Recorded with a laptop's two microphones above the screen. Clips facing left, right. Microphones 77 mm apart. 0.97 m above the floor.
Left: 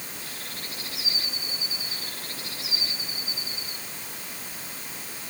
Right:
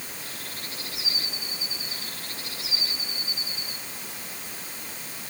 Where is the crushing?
No crushing in this recording.